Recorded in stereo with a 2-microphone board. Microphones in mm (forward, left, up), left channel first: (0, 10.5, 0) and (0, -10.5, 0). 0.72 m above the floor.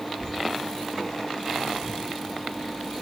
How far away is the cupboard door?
I don't hear a cupboard door.